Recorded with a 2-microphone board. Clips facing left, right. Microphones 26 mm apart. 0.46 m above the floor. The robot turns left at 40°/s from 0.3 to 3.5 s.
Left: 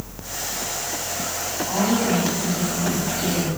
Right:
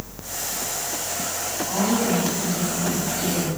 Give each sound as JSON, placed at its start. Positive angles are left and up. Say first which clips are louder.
{"t": 1.7, "sound": "a woman speaking", "louder": "left 1 dB", "azimuth_deg": 45, "distance_m": 3.0}